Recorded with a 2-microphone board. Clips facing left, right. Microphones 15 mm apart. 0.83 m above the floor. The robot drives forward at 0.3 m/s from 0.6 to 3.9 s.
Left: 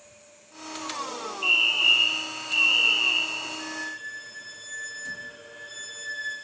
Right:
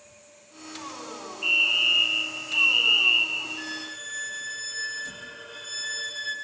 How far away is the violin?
About 1.7 m.